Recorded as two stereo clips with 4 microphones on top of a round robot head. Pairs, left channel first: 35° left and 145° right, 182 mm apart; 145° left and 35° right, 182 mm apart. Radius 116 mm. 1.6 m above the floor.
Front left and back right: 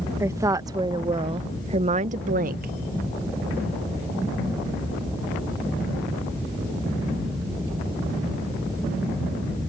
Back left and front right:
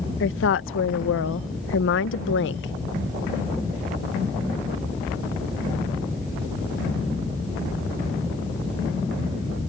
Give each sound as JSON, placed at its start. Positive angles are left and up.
{"t": 0.2, "sound": "a woman speaking", "azimuth_deg": 140}